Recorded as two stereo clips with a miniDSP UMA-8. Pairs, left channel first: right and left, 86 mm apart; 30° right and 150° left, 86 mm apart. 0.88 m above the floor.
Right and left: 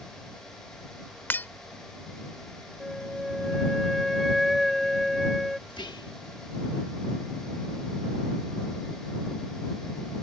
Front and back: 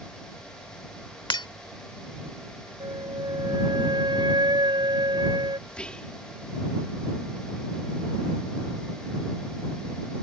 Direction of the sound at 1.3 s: 25° right.